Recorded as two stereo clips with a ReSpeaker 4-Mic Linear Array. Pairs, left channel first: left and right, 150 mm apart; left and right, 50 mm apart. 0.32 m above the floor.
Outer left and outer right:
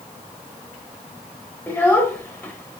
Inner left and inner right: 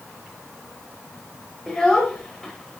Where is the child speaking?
15° left (ahead or behind), 0.6 m.